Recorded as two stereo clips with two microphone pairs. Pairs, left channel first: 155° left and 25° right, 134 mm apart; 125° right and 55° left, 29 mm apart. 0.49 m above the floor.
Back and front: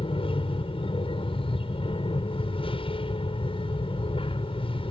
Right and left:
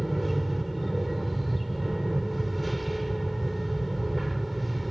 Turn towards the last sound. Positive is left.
turn(degrees=145)